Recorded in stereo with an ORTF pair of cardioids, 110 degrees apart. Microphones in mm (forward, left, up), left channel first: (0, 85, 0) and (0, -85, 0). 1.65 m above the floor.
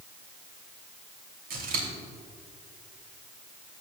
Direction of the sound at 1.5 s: 60° right.